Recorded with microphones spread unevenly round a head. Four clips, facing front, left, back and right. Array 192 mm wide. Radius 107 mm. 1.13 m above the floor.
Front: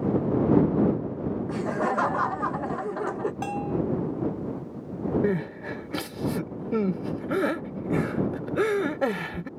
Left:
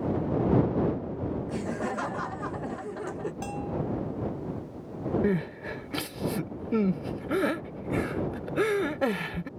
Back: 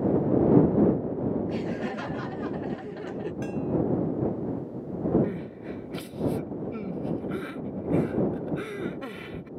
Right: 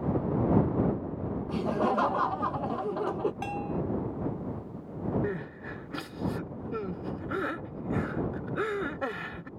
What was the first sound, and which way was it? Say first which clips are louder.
Laughter: right 4 dB, front 4 dB; 30° right.